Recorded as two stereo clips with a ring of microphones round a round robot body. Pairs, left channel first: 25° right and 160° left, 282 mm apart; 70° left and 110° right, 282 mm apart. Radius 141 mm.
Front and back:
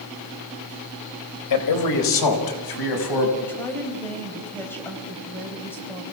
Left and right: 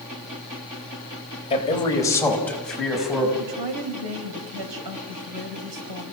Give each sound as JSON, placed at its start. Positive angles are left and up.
{"t": 1.5, "sound": "a man speaking", "azimuth_deg": -5, "distance_m": 3.5}
{"t": 3.4, "sound": "a woman speaking", "azimuth_deg": -105, "distance_m": 4.0}